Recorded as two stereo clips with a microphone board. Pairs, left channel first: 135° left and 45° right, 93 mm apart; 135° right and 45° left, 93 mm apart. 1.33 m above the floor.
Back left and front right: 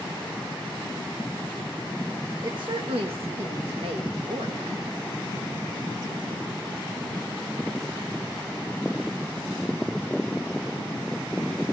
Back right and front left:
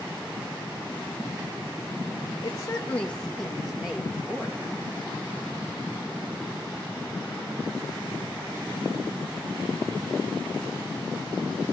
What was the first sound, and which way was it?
A woman speaking, 95° right.